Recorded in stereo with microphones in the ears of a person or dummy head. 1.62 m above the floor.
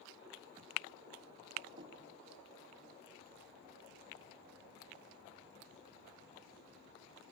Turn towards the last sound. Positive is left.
turn(degrees=-30)  # may be behind; listen again after turning